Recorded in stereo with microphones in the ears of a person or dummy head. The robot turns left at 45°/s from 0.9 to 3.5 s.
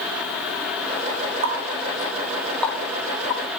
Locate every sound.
1.4 s a running tap: 40° right (ahead or behind), 1.9 m; by 3.4 s 40° left (ahead or behind), 1.9 m